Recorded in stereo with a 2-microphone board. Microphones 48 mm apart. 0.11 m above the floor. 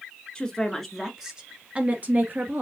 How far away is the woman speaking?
About 1.1 m.